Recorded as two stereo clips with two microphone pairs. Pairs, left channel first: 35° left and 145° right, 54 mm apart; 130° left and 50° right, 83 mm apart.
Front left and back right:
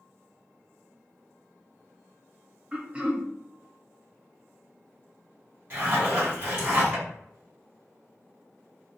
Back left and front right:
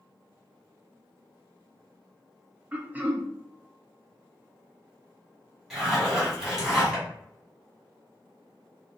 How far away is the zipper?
About 1.8 m.